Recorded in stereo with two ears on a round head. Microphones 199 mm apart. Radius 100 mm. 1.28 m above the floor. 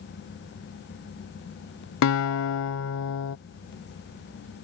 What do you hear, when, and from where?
2.0 s a guitar: 65° left (ahead or behind)